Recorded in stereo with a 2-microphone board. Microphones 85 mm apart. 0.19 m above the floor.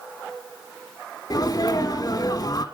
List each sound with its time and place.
1.3 s a sneeze: 45° left (ahead or behind), 1.4 m